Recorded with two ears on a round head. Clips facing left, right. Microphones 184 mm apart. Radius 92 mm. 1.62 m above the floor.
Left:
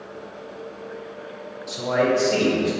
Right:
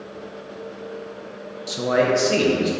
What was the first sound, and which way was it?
A man speaking, 40° right (ahead or behind).